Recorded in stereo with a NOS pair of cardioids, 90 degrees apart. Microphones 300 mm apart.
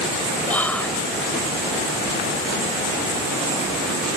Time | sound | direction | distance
0.5 | whispering | 5° left | ?